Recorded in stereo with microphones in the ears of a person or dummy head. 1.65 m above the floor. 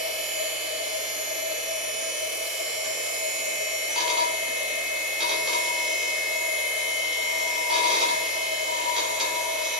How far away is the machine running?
About 1.6 m.